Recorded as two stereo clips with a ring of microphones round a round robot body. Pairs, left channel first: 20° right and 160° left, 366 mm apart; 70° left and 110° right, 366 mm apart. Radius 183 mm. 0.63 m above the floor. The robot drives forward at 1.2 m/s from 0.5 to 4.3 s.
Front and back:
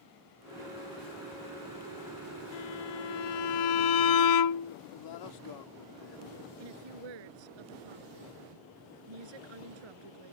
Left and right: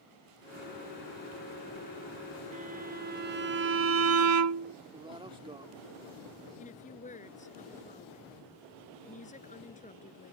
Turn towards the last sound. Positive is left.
turn(degrees=140)